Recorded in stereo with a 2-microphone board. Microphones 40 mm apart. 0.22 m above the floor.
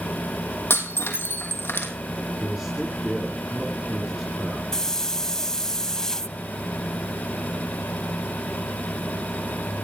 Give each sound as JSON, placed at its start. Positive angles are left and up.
{"t": 0.7, "sound": "breaking glass", "side_deg": 75, "distance_m": 3.0}
{"t": 2.4, "sound": "a man speaking", "side_deg": -15, "distance_m": 3.5}
{"t": 4.7, "sound": "a hiss", "side_deg": 15, "distance_m": 0.7}